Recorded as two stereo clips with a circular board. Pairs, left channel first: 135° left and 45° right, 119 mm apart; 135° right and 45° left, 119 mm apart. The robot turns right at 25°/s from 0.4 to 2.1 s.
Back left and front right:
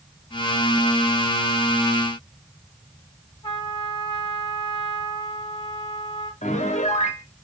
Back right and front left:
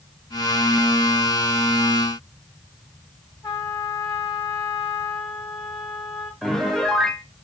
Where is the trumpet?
165° left, 2.5 m.